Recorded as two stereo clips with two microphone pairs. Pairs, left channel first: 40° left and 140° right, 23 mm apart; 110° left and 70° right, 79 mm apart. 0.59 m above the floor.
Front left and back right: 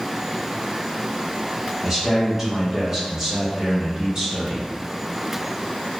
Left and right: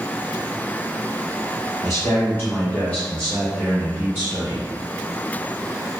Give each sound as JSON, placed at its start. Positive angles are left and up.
{"t": 1.8, "sound": "a man speaking", "azimuth_deg": 135, "distance_m": 1.3}